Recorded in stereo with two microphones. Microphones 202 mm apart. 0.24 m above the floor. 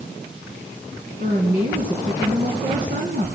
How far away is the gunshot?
I don't hear a gunshot.